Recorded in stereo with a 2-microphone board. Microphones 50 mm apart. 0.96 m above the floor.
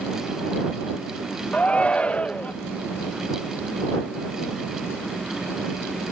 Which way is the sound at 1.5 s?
25° left (ahead or behind).